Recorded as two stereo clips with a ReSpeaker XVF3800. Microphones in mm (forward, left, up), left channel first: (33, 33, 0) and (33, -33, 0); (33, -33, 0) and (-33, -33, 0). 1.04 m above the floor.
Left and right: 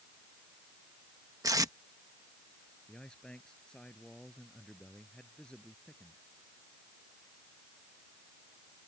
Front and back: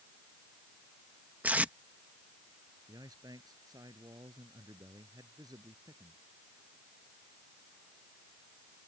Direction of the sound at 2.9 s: 165° left.